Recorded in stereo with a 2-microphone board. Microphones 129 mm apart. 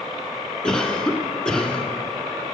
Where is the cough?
5° left (ahead or behind), 1.1 m.